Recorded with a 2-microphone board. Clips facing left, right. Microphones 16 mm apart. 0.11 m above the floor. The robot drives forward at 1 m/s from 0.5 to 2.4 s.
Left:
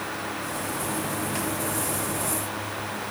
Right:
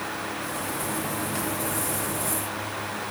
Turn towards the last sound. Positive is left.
No sound to turn to.